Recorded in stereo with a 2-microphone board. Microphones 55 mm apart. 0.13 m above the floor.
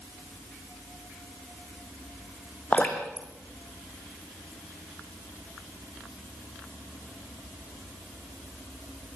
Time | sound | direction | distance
2.7 | dripping | 25° left (ahead or behind) | 3.5 m